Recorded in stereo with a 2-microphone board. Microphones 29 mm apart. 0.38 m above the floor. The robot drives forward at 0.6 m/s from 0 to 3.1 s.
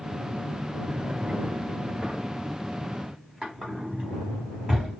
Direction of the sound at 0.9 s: 40° right (ahead or behind).